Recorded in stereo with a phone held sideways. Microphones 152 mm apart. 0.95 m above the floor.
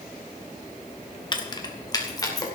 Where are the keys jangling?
30° left (ahead or behind), 1.2 m; by 2.5 s 25° left (ahead or behind), 3 m.